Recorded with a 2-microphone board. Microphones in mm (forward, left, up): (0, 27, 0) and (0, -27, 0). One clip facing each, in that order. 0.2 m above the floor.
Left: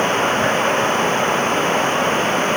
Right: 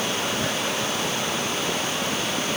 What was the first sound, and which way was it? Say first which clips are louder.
Running water: left 9 dB; 40° left (ahead or behind).